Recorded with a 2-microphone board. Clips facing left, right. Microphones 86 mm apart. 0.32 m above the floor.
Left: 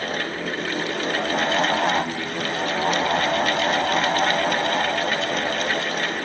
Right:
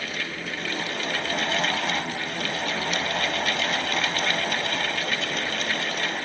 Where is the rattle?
I don't hear a rattle.